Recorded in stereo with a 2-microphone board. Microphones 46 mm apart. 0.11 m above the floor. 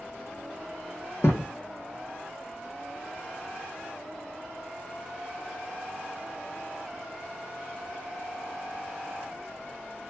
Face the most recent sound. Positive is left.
turn(degrees=75)  # may be behind; listen again after turning